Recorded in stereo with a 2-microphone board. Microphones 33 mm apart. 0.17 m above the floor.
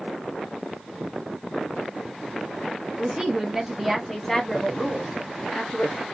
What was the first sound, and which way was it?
A woman speaking, 30° right (ahead or behind).